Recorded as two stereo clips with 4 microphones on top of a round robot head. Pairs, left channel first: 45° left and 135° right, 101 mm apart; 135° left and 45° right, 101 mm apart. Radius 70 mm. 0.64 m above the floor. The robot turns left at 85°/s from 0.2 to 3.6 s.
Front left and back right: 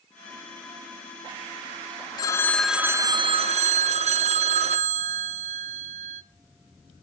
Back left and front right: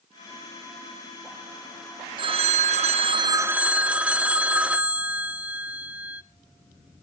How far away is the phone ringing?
About 0.7 m.